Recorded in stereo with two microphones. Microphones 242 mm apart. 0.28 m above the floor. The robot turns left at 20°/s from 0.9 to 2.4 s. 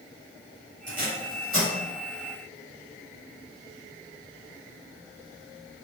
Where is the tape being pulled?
35° left (ahead or behind), 1.4 m.